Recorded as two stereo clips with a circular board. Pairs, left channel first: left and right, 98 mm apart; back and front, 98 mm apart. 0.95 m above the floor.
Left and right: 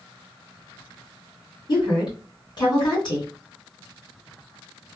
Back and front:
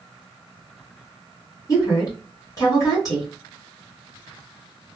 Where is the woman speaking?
130° left, 2.0 m.